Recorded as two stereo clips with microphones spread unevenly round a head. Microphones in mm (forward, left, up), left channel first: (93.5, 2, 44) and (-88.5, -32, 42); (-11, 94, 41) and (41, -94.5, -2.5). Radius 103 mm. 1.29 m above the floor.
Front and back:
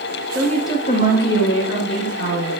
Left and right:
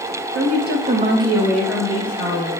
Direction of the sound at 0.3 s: 80° right.